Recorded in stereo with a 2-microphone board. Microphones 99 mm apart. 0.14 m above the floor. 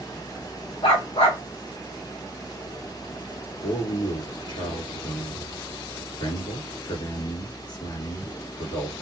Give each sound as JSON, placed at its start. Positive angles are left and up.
{"t": 0.8, "sound": "a dog barking", "side_deg": 80, "distance_m": 2.0}
{"t": 3.6, "sound": "a man speaking", "side_deg": 50, "distance_m": 2.5}